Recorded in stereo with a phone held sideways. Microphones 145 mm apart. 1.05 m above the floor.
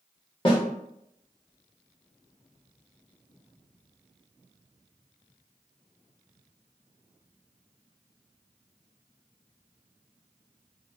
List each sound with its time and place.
0.5 s a snare drum: 35° left (ahead or behind), 0.8 m